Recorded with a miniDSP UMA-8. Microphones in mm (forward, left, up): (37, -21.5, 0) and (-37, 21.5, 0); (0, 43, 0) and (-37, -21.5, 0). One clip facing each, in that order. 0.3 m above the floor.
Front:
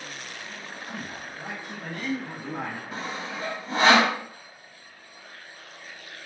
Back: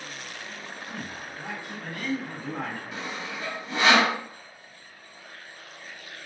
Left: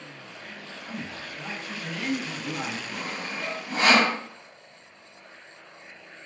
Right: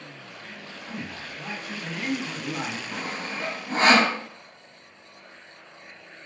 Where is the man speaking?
15° right, 1.8 m; by 2.8 s 95° right, 1.8 m.